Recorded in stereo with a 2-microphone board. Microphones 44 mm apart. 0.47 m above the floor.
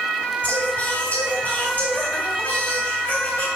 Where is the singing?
35° left (ahead or behind), 3 m.